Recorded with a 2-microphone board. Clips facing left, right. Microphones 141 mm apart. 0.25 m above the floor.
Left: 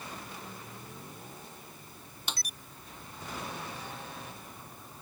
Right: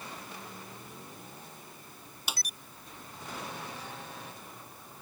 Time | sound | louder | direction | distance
2.3 | a snare drum | right 1 dB | 5° right (ahead or behind) | ?